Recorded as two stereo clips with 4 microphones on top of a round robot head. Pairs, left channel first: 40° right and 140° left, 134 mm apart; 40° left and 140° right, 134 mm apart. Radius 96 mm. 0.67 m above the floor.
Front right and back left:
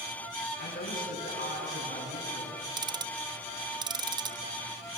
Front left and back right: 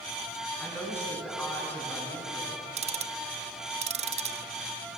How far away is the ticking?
About 0.8 m.